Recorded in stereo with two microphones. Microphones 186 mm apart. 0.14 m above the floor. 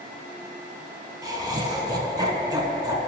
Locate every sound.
1.2 s laughter: 20° right (ahead or behind), 1.1 m